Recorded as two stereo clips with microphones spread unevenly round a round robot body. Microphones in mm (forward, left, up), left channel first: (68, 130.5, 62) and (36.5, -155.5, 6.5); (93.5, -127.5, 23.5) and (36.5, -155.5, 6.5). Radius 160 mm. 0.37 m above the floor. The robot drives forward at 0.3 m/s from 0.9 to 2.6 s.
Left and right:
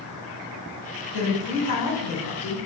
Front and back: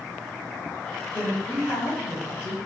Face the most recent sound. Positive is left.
turn(degrees=70)